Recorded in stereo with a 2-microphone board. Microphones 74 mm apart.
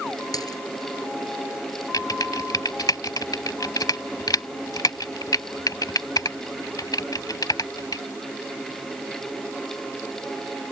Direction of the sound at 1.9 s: 60° left (ahead or behind).